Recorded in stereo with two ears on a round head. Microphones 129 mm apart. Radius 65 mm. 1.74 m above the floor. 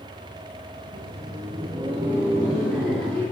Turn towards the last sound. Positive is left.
turn(degrees=5)  # may be behind; listen again after turning